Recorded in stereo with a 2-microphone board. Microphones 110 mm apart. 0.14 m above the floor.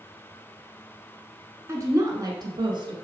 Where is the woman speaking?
25° right (ahead or behind), 1.6 m; by 3.0 s 45° right (ahead or behind), 2 m.